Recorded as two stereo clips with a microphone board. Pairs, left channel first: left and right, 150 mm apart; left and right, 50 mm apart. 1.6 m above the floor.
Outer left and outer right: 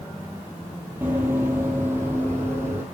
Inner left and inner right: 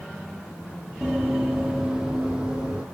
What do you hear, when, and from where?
1.0 s running footsteps: 15° right (ahead or behind), 1.7 m